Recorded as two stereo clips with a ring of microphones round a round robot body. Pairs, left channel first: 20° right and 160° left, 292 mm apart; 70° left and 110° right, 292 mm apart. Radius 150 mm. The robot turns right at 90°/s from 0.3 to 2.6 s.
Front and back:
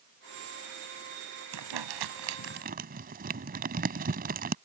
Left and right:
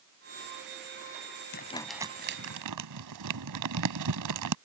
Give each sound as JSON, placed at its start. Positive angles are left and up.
{"t": 1.5, "sound": "crumpling", "azimuth_deg": 125}